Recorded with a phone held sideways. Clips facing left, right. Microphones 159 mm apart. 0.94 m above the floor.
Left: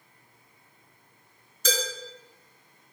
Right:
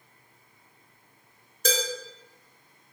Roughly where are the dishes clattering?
Right.